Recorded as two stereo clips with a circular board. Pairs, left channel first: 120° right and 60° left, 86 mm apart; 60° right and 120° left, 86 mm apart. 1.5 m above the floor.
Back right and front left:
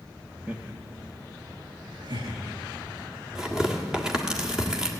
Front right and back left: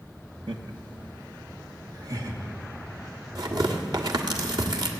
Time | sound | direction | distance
0.5 | laughter | 135° left | 1.3 m
3.4 | tearing paper | 140° left | 1.7 m